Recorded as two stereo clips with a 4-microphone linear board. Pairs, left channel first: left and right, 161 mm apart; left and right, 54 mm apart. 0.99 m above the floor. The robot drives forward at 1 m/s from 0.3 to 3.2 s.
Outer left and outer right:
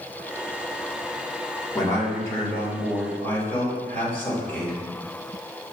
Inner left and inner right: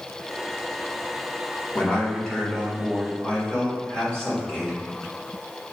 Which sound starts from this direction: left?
A man speaking, at 1.8 s.